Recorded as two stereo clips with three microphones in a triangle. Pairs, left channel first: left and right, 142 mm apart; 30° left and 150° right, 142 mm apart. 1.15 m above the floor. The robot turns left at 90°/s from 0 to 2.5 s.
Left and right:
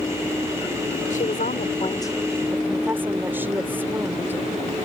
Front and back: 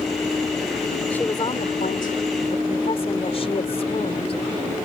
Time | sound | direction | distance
1.1 | a woman speaking | 110° left | ?